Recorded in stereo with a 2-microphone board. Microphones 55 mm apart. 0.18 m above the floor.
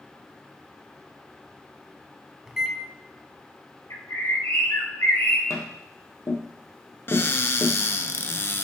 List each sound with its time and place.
2.5 s a microwave: 10° right (ahead or behind), 0.8 m
3.9 s a bird: 80° left, 3 m
5.5 s tapping: 70° left (ahead or behind), 1.6 m
7.1 s a cupboard door: 45° left (ahead or behind), 0.7 m